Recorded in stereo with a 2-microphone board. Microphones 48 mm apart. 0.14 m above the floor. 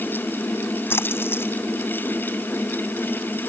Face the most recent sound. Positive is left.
turn(degrees=50)  # may be behind; listen again after turning